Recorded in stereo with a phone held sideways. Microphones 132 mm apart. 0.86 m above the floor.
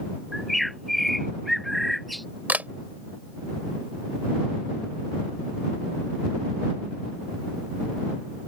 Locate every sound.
0.3 s a bird: centre (ahead or behind)
2.5 s a camera shutter: 10° right (ahead or behind)